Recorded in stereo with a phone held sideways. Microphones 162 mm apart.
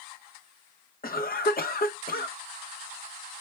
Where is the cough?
65° left (ahead or behind), 0.9 m.